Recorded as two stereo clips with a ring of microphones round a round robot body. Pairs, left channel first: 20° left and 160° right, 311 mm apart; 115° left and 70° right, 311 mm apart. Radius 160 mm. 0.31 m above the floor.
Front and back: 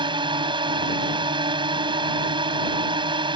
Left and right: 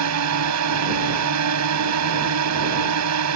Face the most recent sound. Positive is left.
turn(degrees=-85)